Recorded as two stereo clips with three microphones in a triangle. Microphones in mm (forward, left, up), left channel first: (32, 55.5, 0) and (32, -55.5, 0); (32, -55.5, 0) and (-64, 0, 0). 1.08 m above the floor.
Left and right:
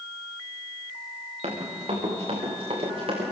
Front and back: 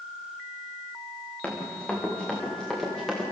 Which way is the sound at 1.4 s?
110° right.